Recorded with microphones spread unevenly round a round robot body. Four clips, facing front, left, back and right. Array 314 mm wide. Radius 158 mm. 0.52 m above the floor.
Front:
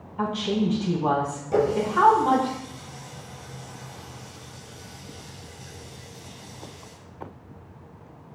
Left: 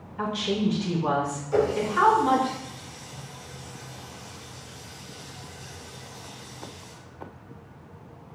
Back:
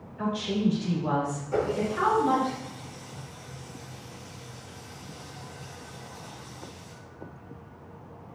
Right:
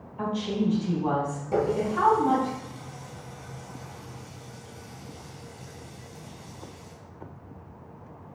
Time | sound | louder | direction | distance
0.2 | a woman speaking | left 1 dB, front 2 dB | 25° left | 5 m
1.5 | a running tap | left 2 dB, front 6 dB | 55° right | 3.5 m